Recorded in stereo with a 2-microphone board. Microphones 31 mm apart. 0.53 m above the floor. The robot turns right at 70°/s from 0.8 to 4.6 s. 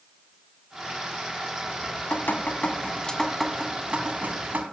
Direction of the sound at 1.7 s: 60° left.